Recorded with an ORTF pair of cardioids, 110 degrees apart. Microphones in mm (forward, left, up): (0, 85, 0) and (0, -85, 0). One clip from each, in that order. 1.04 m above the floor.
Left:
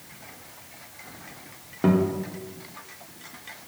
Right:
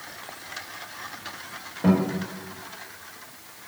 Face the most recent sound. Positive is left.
turn(degrees=55)